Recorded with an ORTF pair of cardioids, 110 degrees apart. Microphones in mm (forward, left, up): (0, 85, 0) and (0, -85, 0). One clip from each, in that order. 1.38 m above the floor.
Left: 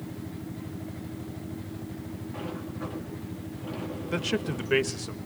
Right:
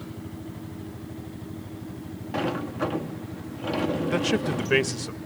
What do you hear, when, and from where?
2.3 s a sliding door: 65° right, 0.9 m
4.1 s a man speaking: 20° right, 1.2 m